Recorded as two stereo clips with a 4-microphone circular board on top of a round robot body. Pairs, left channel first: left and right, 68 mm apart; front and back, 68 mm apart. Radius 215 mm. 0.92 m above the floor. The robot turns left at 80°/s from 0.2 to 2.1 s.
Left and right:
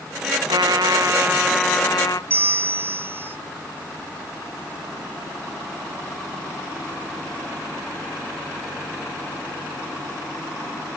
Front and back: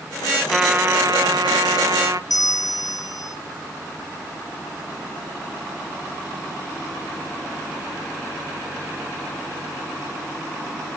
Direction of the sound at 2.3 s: 30° right.